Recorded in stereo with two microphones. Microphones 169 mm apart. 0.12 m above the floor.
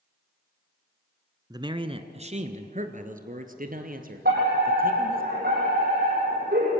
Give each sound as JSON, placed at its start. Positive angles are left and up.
{"t": 1.5, "sound": "a man speaking", "side_deg": -25, "distance_m": 1.1}
{"t": 4.2, "sound": "a fire alarm", "side_deg": -65, "distance_m": 8.5}